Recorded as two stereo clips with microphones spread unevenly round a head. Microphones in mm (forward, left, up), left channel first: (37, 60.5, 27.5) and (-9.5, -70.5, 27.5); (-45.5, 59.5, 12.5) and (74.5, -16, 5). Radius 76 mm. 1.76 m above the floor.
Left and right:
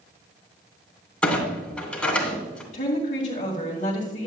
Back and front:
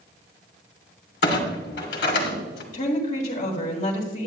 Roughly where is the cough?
I don't hear a cough.